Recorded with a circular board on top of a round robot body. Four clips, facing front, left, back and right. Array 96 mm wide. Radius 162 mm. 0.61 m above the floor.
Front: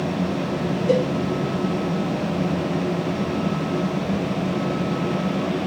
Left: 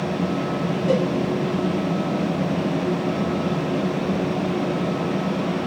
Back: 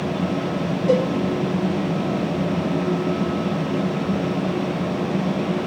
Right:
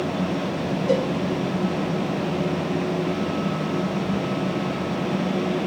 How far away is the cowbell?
About 1.9 m.